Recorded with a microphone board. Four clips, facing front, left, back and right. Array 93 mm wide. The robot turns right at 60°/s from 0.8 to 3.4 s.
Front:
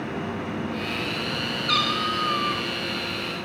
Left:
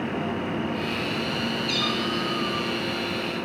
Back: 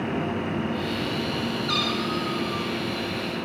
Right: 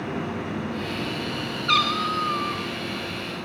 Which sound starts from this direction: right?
A cat meowing, at 1.7 s.